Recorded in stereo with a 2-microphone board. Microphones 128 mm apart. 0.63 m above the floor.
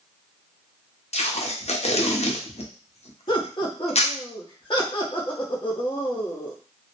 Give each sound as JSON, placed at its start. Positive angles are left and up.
{"t": 1.1, "sound": "tape being pulled", "side_deg": 65, "distance_m": 0.6}
{"t": 3.3, "sound": "laughter", "side_deg": 40, "distance_m": 0.8}